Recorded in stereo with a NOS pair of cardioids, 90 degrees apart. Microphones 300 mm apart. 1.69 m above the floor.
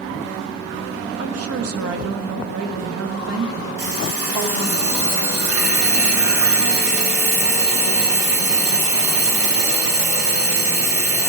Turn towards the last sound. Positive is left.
turn(degrees=-55)